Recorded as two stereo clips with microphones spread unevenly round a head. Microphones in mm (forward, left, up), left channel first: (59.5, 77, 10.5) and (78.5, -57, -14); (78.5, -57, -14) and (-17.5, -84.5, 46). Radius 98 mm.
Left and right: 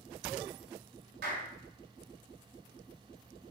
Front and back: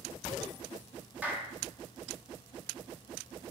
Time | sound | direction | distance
1.2 | a clap | 90° right | 3.5 m